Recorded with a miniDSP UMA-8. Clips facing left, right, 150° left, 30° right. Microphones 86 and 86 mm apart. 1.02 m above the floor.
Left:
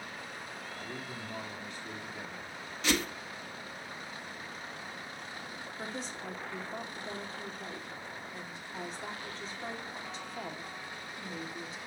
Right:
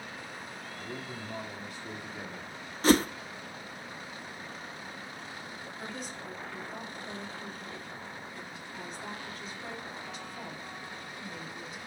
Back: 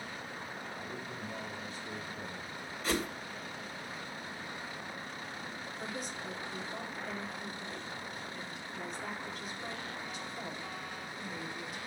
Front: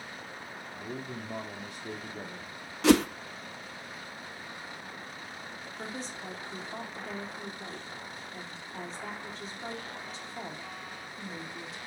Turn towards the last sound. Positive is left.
turn(degrees=30)